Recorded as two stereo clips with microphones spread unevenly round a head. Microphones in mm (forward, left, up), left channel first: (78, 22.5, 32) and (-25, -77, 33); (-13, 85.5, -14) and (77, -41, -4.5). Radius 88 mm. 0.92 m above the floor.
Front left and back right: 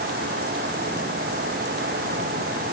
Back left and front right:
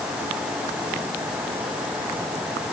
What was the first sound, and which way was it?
Only background noise.